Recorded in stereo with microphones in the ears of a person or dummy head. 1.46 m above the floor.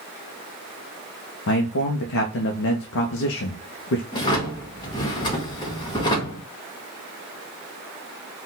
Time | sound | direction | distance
1.5 | a man speaking | 65° left (ahead or behind) | 0.7 m
4.1 | a drawer | 25° left (ahead or behind) | 1.1 m